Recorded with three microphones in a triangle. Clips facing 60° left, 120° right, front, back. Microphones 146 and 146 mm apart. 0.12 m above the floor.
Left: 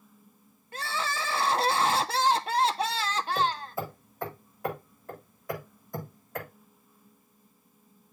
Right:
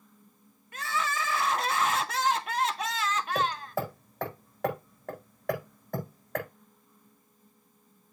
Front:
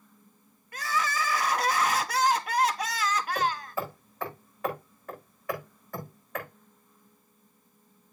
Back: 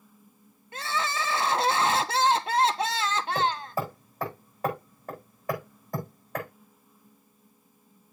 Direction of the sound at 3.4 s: 125° right.